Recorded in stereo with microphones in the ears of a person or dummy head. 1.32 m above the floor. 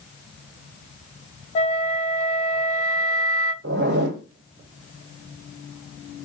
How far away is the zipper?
About 1.4 m.